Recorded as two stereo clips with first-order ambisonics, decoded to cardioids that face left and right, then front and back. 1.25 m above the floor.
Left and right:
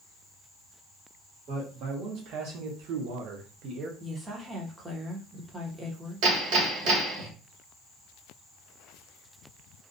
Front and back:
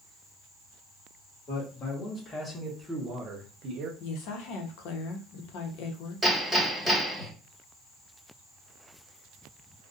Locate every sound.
1.5 s a man speaking: 55° right, 1.2 m; by 3.9 s 150° right, 0.8 m
4.0 s a woman speaking: 15° right, 0.7 m
6.2 s hammering: 90° right, 1.5 m